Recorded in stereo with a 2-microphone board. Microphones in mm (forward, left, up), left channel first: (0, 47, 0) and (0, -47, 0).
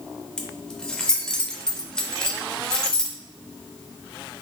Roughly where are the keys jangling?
Centre.